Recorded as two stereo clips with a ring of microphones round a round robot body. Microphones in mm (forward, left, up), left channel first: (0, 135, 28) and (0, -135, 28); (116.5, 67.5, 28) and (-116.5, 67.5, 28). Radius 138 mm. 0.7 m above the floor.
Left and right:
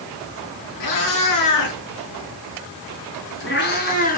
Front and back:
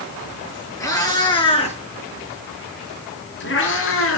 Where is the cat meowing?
75° left, 5.5 m; by 4.2 s 30° left, 4.5 m.